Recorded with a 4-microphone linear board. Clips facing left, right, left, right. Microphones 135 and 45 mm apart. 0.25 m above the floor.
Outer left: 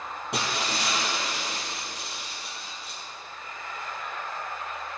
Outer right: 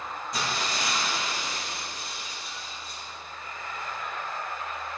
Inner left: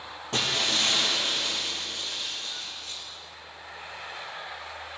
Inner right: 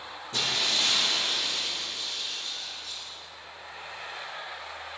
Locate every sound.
0.3 s breaking glass: 85° left, 3 m